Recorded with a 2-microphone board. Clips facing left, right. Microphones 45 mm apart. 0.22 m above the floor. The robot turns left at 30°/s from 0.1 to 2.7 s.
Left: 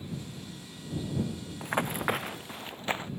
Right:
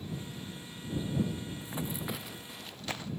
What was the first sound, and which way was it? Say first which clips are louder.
Running footsteps: left 12 dB; 65° left (ahead or behind).